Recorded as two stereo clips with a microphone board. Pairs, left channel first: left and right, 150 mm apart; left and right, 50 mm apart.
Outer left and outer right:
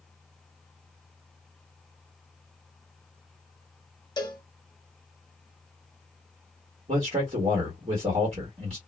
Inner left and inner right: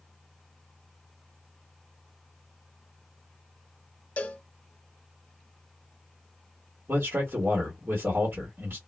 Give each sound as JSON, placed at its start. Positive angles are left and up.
{"t": 4.2, "sound": "a cowbell", "side_deg": 30, "distance_m": 0.7}
{"t": 6.9, "sound": "a man speaking", "side_deg": -45, "distance_m": 1.4}